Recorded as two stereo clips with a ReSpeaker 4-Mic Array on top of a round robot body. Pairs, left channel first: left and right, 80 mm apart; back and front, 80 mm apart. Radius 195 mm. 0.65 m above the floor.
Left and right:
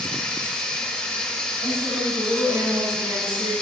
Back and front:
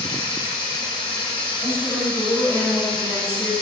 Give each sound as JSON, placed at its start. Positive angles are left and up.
{"t": 0.0, "sound": "running water", "azimuth_deg": 165, "distance_m": 2.5}
{"t": 1.6, "sound": "a woman speaking", "azimuth_deg": -115, "distance_m": 6.0}